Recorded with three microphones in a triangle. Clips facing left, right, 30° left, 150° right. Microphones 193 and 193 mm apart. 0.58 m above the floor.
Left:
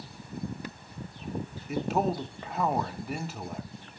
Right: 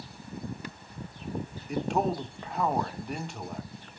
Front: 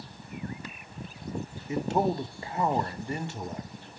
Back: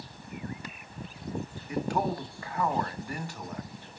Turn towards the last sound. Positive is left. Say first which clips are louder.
# even, front 3 dB
turn(degrees=5)